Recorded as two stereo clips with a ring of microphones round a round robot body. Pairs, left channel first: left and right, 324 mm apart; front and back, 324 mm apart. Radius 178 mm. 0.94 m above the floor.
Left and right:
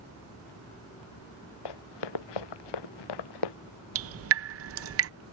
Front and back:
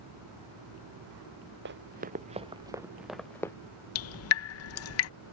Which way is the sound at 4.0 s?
45° right.